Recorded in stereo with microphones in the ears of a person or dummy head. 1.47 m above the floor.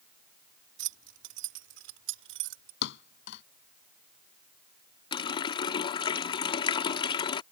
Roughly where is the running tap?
Left.